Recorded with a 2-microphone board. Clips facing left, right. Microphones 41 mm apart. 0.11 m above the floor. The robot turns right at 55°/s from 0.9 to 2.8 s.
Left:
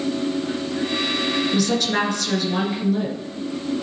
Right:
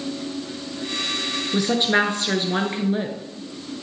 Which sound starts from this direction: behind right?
A woman speaking, at 1.5 s.